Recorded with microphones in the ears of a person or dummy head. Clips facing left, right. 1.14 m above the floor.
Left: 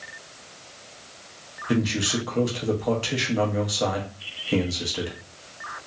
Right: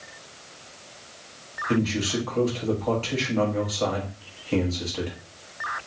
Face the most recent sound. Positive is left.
turn(degrees=15)  # may be behind; listen again after turning